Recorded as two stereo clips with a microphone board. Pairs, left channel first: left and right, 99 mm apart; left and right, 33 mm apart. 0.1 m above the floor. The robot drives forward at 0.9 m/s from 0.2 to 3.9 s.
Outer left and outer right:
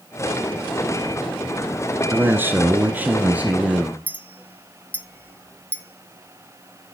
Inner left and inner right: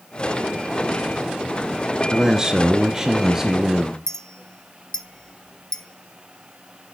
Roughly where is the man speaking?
Right.